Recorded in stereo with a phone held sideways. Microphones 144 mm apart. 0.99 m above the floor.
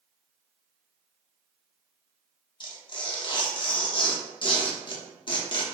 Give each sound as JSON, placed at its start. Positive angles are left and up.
{"t": 2.6, "sound": "tearing paper", "side_deg": 35, "distance_m": 0.6}